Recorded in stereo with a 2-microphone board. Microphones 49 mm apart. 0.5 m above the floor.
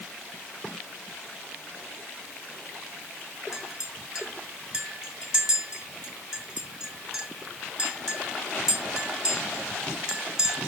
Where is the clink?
10° right (ahead or behind), 2 m.